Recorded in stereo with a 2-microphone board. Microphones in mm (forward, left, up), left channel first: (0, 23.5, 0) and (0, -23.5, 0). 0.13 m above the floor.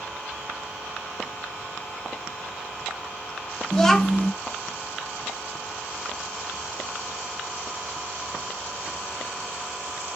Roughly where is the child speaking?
Centre.